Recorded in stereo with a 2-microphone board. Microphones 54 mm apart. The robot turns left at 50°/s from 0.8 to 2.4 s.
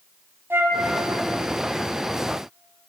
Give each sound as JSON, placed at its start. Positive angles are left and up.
{"t": 0.5, "sound": "a flute", "side_deg": -45, "distance_m": 2.0}